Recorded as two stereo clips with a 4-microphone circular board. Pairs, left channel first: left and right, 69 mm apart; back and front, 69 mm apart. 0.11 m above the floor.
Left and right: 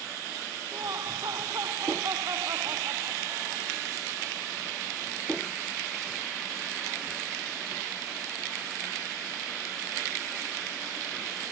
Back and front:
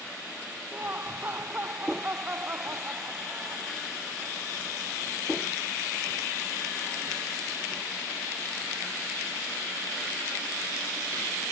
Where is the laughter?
60° right.